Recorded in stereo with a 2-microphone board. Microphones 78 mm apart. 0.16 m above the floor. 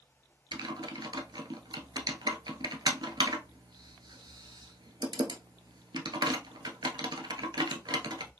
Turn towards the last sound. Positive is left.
turn(degrees=-65)  # may be behind; listen again after turning